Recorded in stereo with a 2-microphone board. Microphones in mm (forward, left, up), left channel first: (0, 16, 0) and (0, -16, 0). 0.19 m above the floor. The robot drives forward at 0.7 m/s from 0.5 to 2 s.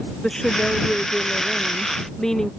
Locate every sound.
0.2 s a woman speaking: 15° left (ahead or behind)